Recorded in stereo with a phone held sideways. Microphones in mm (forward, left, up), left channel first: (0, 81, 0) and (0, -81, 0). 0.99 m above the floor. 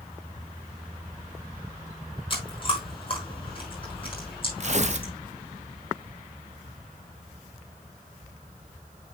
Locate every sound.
2.3 s chewing: 35° left (ahead or behind), 6 m
4.6 s tearing paper: 50° right (ahead or behind), 0.8 m